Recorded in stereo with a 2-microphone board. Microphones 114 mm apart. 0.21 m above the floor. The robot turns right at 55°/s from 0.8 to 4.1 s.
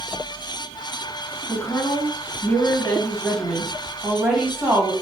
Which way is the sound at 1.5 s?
30° left (ahead or behind).